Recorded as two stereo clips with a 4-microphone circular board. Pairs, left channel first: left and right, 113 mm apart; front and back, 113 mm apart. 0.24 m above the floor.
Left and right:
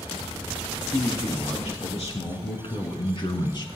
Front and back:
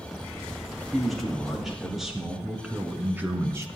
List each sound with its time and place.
0.9 s a man speaking: 90° left, 4.5 m; by 3.7 s 125° left, 1.9 m